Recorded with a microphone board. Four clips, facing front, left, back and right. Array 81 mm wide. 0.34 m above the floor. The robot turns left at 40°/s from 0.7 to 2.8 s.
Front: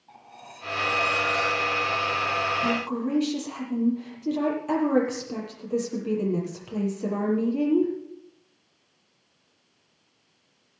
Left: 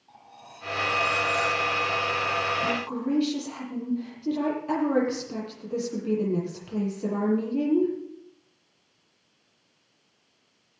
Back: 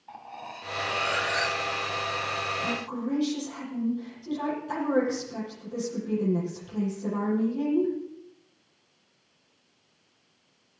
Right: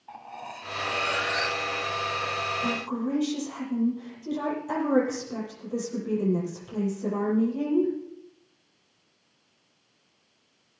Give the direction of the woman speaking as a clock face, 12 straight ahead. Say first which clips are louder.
Left 1 dB, front 5 dB; 11 o'clock.